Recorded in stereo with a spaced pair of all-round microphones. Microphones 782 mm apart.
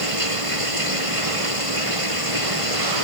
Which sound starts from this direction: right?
Running water, at 0.0 s.